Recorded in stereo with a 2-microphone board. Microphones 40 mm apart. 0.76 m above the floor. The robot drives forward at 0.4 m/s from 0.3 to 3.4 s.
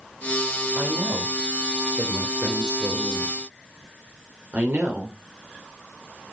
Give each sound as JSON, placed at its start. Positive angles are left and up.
{"t": 0.8, "sound": "a woman speaking", "side_deg": -45, "distance_m": 4.0}